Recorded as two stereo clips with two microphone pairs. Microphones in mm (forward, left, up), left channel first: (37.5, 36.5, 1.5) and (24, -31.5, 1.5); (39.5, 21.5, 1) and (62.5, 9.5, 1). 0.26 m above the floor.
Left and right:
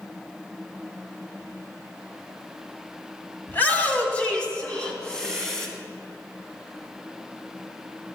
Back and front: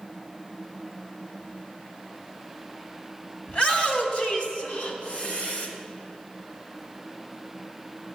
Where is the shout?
130° left, 1.9 m; by 5.7 s 160° left, 2.5 m.